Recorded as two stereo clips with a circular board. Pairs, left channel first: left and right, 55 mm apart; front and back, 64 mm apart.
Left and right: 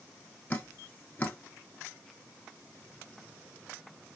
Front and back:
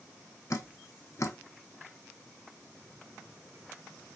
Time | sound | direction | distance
0.5 | dripping | 30° left | 0.5 m